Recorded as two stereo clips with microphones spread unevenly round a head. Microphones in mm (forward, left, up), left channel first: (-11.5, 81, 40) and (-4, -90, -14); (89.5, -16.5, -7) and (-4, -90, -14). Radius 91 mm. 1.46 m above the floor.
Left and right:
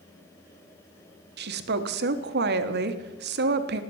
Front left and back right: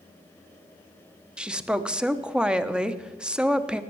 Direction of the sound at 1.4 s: 60° right.